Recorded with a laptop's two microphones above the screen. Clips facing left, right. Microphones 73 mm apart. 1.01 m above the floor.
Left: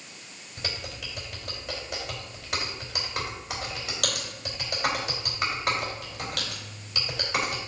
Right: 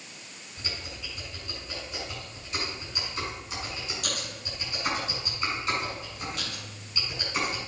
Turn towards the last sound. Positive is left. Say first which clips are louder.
# left 3 dB
turn(degrees=85)